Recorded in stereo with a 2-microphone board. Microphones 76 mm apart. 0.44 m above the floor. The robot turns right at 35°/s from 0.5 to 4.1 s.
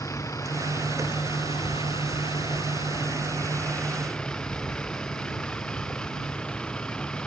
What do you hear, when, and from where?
0.0 s a vehicle: 40° left; by 7.3 s 165° left